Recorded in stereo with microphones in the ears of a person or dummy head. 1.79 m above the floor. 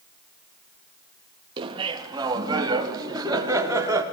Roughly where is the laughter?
Right.